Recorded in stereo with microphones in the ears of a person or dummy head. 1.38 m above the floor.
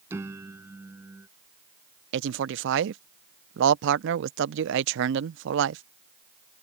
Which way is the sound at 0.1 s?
10° right (ahead or behind).